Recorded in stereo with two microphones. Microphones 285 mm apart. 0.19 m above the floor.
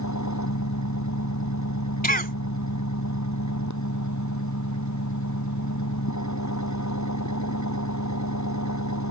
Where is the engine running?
80° left.